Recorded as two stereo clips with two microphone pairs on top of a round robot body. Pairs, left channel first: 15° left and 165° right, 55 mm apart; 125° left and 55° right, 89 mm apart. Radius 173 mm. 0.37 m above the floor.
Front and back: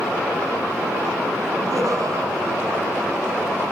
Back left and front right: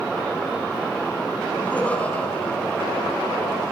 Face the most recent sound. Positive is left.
turn(degrees=-155)